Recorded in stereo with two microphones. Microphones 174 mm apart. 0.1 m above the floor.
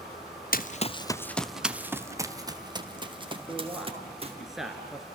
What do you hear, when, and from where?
0.5 s running footsteps: 60° left (ahead or behind), 0.8 m; by 4.4 s 35° right (ahead or behind), 3.5 m
3.5 s a man speaking: centre (ahead or behind), 1.8 m